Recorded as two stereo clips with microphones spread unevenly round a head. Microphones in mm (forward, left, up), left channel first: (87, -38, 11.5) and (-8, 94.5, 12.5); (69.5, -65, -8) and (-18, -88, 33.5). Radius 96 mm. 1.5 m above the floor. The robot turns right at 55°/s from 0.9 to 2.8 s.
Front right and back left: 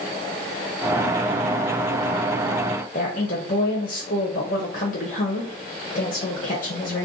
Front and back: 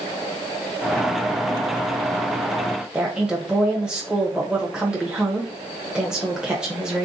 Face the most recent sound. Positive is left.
turn(degrees=-100)